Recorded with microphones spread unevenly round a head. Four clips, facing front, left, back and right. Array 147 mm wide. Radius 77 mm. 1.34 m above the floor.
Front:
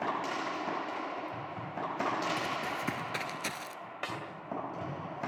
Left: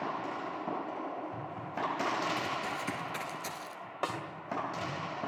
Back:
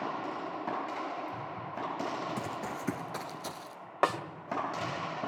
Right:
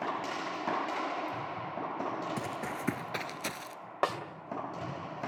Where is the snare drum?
150° right, 1.7 m.